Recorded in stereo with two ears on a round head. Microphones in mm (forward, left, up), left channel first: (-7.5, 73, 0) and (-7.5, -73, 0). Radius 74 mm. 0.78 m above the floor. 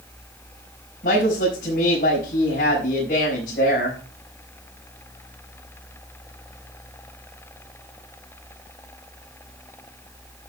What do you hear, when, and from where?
1.0 s a woman speaking: 55° left (ahead or behind), 5 m